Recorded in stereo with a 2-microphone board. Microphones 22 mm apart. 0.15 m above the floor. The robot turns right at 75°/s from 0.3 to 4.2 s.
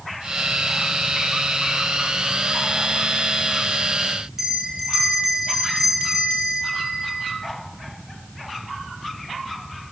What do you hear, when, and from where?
4.4 s a bell: 25° right (ahead or behind), 1.7 m